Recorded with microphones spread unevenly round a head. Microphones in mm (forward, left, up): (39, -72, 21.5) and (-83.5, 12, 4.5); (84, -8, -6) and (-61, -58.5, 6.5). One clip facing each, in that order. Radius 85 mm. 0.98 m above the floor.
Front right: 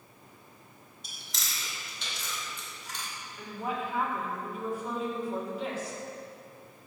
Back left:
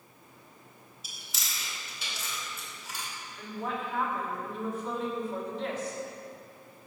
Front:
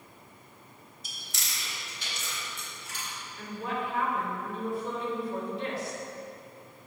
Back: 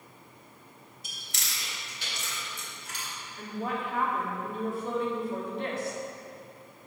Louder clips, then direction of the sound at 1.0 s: Front right 1 dB, even; 130° right.